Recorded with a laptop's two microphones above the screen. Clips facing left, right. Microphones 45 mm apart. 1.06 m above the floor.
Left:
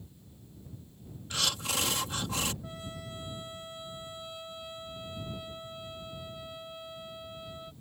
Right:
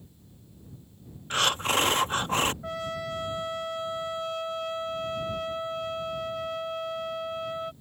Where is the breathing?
45° right (ahead or behind).